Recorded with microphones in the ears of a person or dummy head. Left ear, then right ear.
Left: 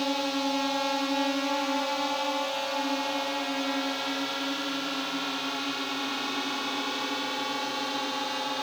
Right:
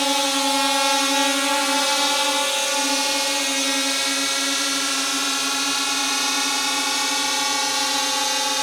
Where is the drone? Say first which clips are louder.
Right 8 dB; 55° right (ahead or behind); by 8.6 s 70° right (ahead or behind).